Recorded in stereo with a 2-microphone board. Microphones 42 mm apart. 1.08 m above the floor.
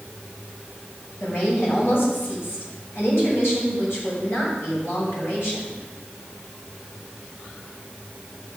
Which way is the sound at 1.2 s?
65° left (ahead or behind).